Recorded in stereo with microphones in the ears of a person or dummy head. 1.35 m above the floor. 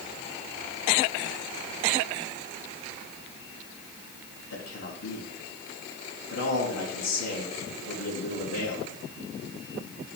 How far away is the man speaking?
About 2.0 m.